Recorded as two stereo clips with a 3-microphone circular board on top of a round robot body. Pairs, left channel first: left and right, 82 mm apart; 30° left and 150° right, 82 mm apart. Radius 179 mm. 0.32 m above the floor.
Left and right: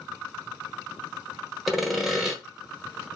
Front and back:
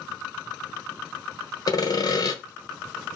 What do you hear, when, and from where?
1.7 s sawing: 5° right, 1.1 m